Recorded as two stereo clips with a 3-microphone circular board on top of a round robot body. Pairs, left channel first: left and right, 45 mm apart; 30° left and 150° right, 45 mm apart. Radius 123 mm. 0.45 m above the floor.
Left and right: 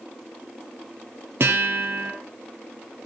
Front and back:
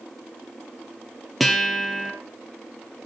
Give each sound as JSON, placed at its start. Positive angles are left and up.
{"t": 1.4, "sound": "a guitar", "azimuth_deg": -60, "distance_m": 2.5}